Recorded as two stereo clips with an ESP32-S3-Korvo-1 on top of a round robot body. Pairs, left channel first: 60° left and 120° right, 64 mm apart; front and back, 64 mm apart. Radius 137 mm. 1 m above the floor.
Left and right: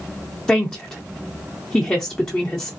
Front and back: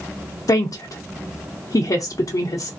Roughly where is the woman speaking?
Ahead.